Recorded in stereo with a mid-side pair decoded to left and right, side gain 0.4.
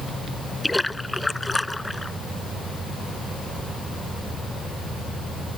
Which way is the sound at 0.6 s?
10° left.